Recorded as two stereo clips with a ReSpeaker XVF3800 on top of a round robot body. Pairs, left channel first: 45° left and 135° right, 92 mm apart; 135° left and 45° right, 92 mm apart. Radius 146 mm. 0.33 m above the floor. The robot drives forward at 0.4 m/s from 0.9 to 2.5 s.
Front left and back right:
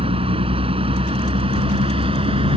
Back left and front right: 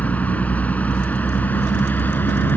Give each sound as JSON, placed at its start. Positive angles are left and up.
{"t": 0.0, "sound": "a vehicle", "azimuth_deg": -150}